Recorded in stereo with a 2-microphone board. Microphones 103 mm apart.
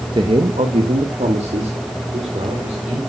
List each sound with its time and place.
0.1 s a man speaking: 45° right (ahead or behind), 1.1 m; by 3.0 s 70° right (ahead or behind), 4.5 m